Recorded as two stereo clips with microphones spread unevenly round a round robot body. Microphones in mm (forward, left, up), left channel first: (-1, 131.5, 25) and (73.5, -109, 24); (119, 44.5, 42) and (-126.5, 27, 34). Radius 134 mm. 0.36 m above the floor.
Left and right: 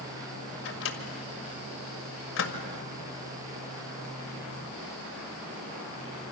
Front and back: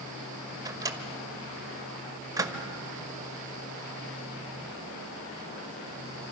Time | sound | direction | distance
0.7 | a microwave | 115° left | 1.8 m